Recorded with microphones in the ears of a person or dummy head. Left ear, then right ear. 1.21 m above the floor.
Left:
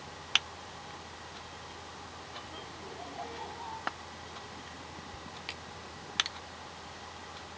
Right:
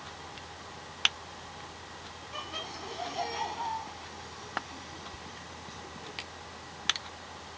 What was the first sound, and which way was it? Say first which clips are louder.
Laughter: right 10 dB; 50° right (ahead or behind).